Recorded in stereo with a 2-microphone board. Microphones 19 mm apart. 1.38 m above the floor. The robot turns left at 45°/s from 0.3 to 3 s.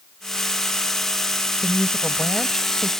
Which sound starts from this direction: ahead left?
A woman speaking, at 1.6 s.